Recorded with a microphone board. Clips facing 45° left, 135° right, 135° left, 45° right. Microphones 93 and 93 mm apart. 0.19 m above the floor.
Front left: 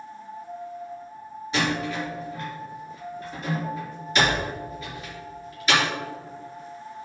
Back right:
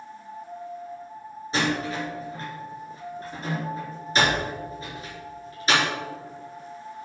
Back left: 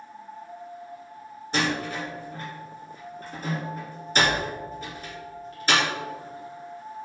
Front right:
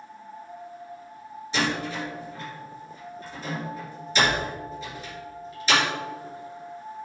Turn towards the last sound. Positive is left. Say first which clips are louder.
# even, even
turn(degrees=170)